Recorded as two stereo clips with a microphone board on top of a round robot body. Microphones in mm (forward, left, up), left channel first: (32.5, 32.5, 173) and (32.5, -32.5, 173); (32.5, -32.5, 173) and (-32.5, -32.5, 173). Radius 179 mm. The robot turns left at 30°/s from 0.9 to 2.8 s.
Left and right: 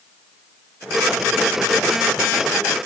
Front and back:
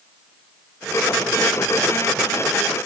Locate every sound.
Only background noise.